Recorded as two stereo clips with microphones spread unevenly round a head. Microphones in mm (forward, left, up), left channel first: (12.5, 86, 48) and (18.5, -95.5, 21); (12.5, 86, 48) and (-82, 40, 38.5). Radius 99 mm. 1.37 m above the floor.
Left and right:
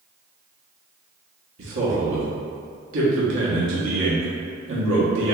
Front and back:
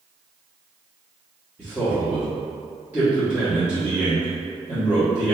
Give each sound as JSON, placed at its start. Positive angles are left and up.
{"t": 1.6, "sound": "a man speaking", "azimuth_deg": -75, "distance_m": 1.0}